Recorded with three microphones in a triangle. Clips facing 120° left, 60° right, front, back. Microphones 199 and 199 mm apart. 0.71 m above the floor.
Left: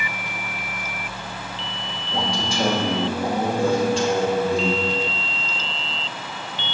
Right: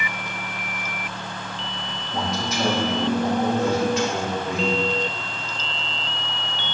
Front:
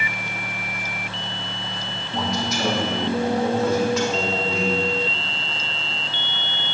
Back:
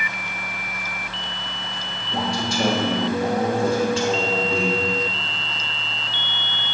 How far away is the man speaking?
About 1.2 m.